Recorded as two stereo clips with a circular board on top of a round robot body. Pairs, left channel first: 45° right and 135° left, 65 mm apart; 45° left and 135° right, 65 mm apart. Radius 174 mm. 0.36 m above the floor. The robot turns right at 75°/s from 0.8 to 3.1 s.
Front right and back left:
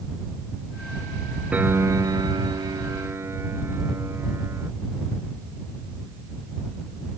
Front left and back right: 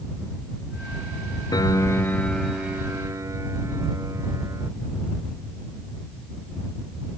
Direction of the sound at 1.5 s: 65° left.